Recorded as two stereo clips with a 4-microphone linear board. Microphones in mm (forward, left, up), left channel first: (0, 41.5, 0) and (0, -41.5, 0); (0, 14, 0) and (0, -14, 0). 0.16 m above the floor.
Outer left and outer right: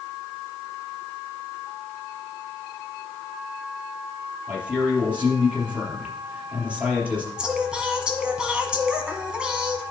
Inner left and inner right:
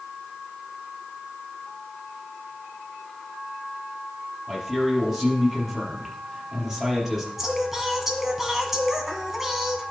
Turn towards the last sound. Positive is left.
turn(degrees=-10)  # may be behind; listen again after turning